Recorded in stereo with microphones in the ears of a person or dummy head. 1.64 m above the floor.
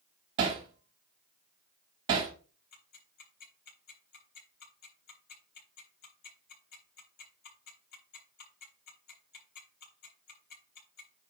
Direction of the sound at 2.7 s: 45° left (ahead or behind).